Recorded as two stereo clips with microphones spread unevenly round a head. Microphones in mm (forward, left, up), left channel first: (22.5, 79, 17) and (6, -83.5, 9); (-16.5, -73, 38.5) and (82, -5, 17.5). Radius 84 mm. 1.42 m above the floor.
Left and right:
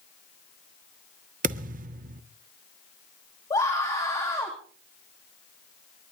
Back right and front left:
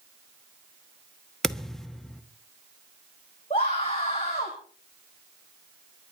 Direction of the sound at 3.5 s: 155° left.